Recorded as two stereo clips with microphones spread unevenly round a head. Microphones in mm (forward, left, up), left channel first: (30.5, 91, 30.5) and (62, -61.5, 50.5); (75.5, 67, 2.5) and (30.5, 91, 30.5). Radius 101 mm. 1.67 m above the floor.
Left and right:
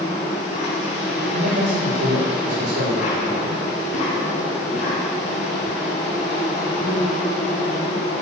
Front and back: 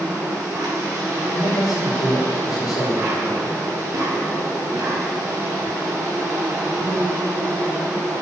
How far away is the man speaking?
About 5.5 m.